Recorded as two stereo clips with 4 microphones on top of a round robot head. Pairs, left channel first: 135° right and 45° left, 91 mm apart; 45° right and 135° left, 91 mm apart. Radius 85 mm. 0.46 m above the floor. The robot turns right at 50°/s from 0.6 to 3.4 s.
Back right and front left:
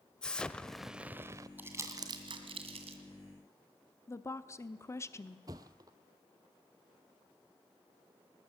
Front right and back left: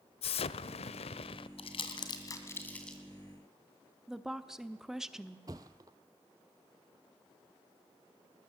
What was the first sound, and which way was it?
An explosion, 55° right.